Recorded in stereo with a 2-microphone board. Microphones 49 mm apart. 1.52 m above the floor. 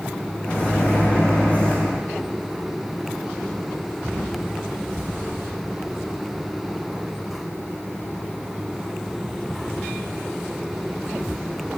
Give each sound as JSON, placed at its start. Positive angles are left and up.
{"t": 0.4, "sound": "a microwave", "side_deg": 25, "distance_m": 0.9}